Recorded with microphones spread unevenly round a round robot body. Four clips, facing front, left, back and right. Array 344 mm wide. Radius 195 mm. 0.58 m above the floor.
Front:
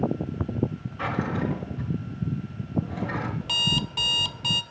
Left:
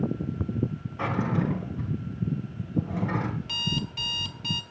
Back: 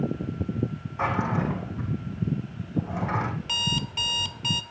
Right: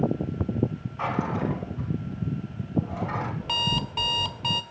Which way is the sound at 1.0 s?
125° left.